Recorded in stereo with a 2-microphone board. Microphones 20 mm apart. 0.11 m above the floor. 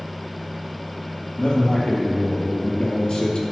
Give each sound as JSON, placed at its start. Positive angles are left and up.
{"t": 1.4, "sound": "a man speaking", "side_deg": 60, "distance_m": 2.5}